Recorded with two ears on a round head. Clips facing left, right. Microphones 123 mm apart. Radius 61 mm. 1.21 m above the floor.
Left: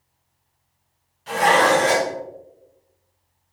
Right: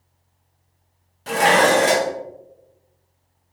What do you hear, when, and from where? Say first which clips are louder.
1.3 s dishes clattering: right 1 dB; 60° right (ahead or behind), 0.6 m